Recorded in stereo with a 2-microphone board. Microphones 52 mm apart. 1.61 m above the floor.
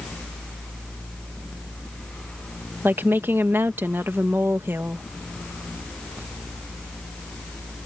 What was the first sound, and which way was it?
A woman speaking, 45° right (ahead or behind).